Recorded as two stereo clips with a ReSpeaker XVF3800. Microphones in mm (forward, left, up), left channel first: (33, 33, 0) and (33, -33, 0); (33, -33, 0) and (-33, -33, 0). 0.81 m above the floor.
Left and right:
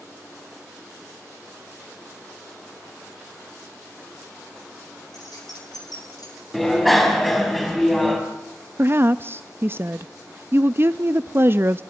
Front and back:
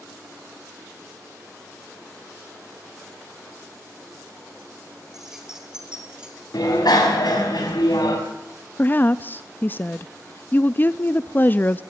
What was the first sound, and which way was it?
Keys jangling, 100° left.